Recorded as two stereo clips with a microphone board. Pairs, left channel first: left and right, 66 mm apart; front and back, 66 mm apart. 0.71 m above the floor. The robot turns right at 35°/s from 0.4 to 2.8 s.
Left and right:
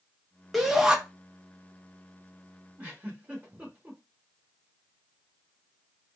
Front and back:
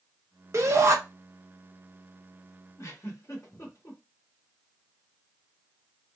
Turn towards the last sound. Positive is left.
turn(degrees=-30)